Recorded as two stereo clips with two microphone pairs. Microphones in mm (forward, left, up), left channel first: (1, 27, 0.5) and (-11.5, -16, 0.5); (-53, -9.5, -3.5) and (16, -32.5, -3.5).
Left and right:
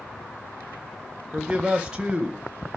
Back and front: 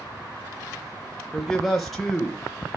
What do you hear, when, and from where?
1.3 s a man speaking: 115° right, 0.9 m